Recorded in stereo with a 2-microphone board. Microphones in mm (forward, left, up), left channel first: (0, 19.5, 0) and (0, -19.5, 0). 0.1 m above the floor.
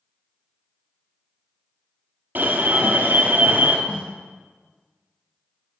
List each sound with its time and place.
2.4 s an alarm: 50° right (ahead or behind), 1.7 m
3.9 s a snare drum: 10° right (ahead or behind), 3 m